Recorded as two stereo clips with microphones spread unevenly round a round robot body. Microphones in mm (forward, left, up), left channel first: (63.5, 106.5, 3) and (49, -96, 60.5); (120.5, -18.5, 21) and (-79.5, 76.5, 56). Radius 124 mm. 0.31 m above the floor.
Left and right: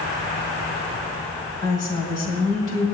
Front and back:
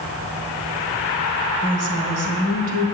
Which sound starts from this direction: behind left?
A woman speaking, at 1.6 s.